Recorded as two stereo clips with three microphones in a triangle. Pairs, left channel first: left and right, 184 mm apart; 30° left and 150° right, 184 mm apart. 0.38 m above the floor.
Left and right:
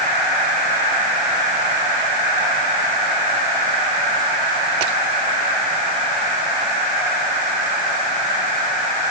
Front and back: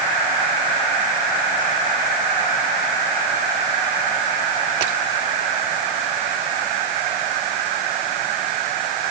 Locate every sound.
Only background noise.